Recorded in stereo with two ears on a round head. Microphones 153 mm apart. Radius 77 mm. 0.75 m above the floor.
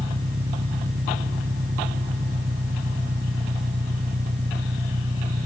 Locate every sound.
0.0 s an engine running: 45° right (ahead or behind)